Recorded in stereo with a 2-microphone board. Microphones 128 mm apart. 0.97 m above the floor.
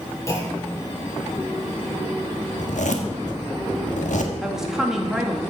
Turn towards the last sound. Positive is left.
turn(degrees=-5)  # may be behind; listen again after turning